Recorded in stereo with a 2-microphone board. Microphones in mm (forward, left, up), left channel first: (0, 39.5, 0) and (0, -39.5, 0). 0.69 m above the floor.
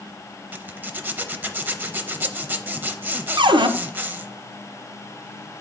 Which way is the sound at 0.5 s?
25° right (ahead or behind).